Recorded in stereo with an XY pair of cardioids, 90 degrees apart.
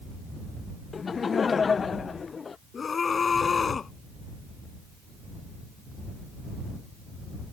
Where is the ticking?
No ticking in this recording.